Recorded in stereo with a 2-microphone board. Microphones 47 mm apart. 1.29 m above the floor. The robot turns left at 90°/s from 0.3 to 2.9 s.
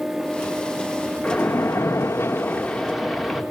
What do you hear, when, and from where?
1.2 s a splash: 150° left, 3 m; by 3.4 s straight ahead, 3 m